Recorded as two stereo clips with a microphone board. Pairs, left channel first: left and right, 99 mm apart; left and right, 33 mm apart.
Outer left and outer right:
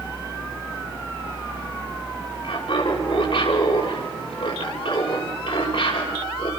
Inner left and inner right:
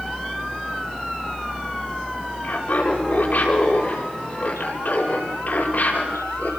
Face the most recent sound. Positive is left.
turn(degrees=50)  # may be behind; listen again after turning